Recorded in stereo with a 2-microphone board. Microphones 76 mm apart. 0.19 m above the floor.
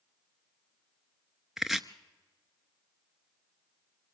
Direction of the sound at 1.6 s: 5° right (ahead or behind).